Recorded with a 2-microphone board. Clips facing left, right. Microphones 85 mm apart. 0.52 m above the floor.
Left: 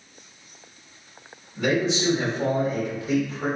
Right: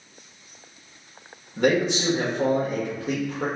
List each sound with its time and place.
1.6 s a man speaking: 55° right (ahead or behind), 1.2 m